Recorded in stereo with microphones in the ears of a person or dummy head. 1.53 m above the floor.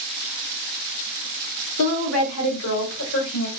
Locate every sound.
1.8 s a woman speaking: 85° left, 0.9 m; by 3.5 s 70° left (ahead or behind), 1.6 m